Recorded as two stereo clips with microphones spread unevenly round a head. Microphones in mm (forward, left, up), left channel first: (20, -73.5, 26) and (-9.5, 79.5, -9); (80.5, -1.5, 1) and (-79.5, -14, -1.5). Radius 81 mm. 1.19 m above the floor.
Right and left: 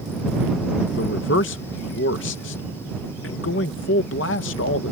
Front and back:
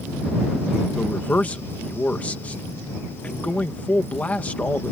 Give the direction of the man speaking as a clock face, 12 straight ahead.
3 o'clock.